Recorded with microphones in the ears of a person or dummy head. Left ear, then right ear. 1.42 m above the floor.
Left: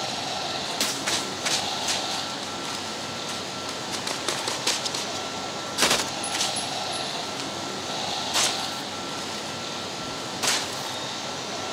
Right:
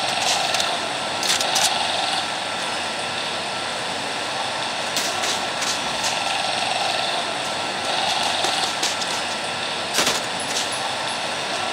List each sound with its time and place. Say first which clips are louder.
0.0 s running water: right 8 dB; 30° right (ahead or behind), 1.4 m